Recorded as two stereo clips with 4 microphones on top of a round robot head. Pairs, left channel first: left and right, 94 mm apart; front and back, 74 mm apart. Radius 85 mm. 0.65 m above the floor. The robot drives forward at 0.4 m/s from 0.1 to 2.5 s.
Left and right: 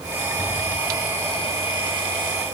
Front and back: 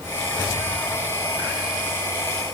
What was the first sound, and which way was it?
Only background noise.